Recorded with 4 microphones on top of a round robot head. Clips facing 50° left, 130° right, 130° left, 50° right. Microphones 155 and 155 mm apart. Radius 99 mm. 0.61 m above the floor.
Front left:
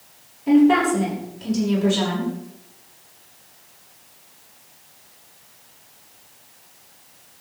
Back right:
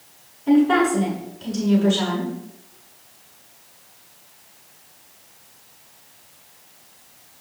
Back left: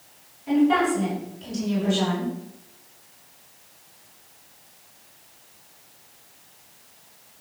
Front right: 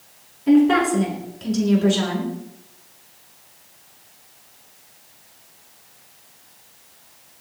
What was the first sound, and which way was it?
A woman speaking, 30° right.